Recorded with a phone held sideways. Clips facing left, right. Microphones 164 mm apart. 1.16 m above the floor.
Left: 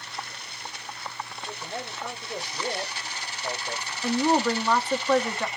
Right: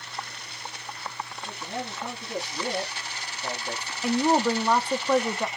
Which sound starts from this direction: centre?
A woman speaking, at 4.0 s.